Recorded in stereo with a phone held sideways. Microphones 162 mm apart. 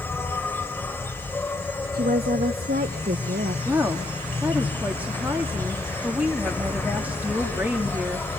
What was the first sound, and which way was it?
An insect, 15° left (ahead or behind).